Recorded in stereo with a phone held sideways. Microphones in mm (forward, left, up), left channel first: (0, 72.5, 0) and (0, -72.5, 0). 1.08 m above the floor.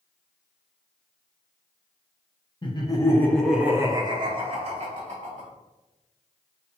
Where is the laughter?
35° left (ahead or behind), 0.8 m; by 5.5 s 50° right (ahead or behind), 1.3 m.